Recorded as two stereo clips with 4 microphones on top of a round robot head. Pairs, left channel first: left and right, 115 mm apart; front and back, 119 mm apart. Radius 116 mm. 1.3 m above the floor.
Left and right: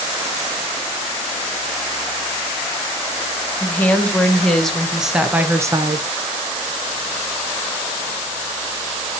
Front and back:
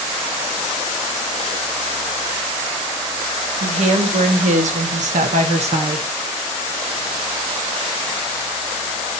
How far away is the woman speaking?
About 1.9 m.